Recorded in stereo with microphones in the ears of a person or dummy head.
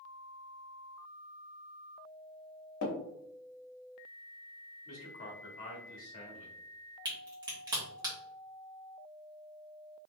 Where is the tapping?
65° left (ahead or behind), 1.0 m.